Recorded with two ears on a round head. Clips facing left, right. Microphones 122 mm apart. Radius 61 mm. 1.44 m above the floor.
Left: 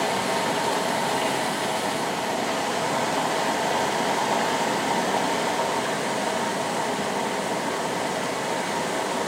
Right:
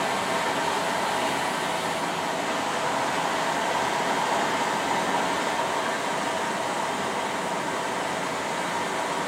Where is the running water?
40° left (ahead or behind), 0.9 m.